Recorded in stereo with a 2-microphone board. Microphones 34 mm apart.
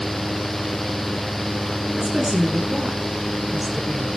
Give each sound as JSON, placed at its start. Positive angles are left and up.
{"t": 2.0, "sound": "a woman speaking", "side_deg": -5, "distance_m": 7.0}